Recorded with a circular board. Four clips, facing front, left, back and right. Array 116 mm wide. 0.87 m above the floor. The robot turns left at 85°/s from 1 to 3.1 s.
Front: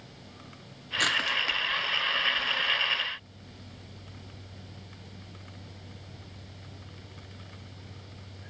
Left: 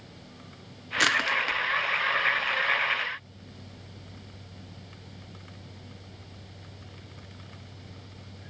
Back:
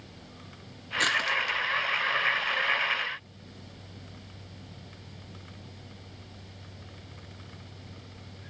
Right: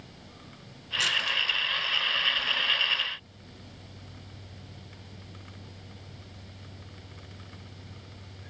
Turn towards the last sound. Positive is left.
turn(degrees=-85)